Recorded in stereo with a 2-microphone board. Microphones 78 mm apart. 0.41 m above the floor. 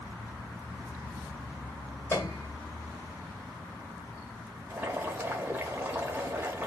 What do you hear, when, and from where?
2.1 s a piano: 30° left (ahead or behind), 1.2 m
4.7 s boiling: 25° right (ahead or behind), 0.9 m